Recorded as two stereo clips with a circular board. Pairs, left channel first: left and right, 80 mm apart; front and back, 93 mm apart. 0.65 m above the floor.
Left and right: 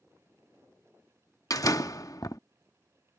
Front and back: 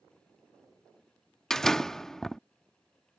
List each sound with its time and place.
1.5 s a door slam: 85° left